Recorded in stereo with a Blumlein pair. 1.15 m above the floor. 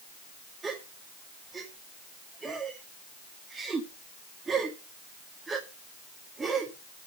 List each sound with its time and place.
0.6 s a gasp: 15° right, 1.9 m